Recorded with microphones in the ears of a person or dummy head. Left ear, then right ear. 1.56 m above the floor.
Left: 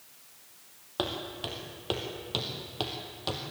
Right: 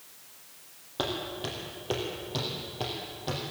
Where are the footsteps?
30° left (ahead or behind), 3.5 m; by 3.4 s 50° left (ahead or behind), 3 m.